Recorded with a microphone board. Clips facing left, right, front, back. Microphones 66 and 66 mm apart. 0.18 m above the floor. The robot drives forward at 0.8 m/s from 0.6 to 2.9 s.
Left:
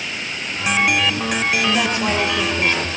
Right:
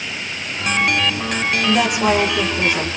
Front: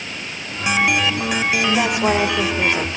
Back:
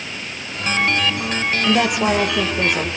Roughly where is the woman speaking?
Behind.